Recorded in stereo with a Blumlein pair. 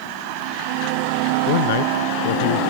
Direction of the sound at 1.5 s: 50° left.